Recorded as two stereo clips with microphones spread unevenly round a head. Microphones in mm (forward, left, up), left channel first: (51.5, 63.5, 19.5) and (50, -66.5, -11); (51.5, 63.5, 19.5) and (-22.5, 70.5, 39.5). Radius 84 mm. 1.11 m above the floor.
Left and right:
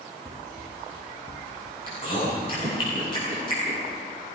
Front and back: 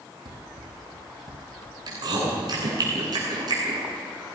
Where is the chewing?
150° left, 9.5 m.